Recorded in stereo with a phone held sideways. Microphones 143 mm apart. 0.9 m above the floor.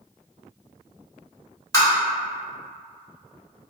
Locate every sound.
1.7 s tapping: 20° left (ahead or behind), 1.3 m